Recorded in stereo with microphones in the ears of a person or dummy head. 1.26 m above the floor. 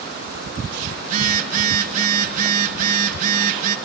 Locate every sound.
1.0 s a phone buzzing: 45° right (ahead or behind), 2.5 m